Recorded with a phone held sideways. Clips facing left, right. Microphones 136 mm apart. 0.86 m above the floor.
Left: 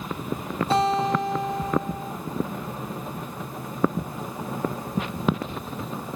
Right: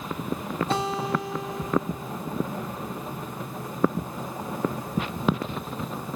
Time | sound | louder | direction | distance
0.7 | a guitar | left 7 dB | centre (ahead or behind) | 2.0 m